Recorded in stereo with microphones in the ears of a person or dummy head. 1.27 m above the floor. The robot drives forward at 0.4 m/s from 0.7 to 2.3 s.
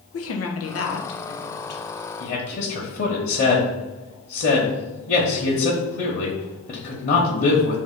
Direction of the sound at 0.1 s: 75° left (ahead or behind).